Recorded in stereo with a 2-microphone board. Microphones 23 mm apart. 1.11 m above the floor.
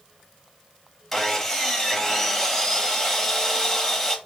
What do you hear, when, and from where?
1.1 s sawing: 5° left (ahead or behind), 1.5 m